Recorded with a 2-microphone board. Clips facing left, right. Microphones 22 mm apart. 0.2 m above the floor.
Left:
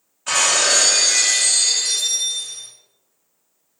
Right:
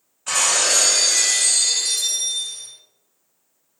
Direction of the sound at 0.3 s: 10° left (ahead or behind).